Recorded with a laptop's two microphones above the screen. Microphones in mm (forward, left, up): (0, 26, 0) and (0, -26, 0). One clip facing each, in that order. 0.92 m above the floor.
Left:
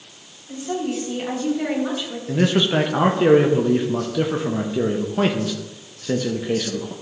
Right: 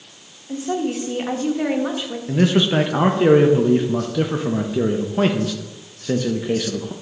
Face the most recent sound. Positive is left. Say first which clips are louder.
# right 1 dB
turn(degrees=-5)  # may be behind; listen again after turning